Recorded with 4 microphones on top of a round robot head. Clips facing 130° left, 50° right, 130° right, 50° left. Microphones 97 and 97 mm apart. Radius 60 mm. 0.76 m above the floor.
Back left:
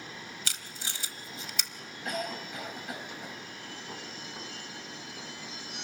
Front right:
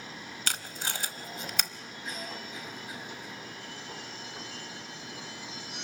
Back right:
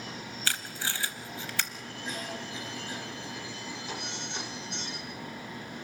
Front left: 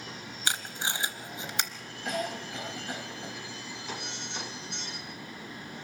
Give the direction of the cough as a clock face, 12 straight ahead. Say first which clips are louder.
Back left 6 dB, front left 5 dB; 9 o'clock.